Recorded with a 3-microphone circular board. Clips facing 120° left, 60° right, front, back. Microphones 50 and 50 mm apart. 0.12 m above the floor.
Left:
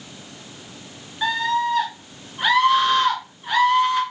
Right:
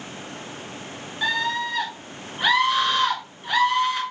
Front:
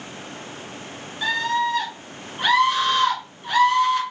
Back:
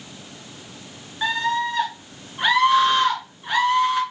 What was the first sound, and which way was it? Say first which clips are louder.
A scream: left 3 dB, even; 155° right.